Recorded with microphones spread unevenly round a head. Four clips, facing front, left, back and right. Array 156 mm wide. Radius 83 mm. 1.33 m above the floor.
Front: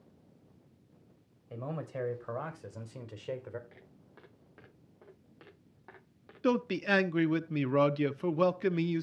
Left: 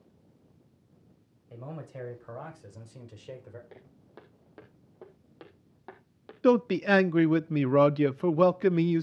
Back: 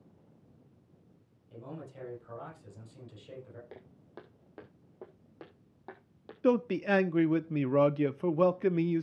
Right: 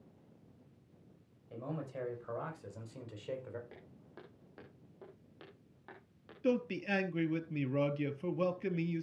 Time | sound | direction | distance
1.5 | a man speaking | straight ahead | 5 m
3.7 | footsteps | 165° left | 4 m
6.4 | a man speaking | 100° left | 0.7 m